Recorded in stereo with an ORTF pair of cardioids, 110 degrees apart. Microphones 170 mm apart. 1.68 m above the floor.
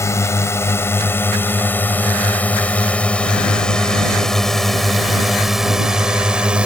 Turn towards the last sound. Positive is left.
turn(degrees=-5)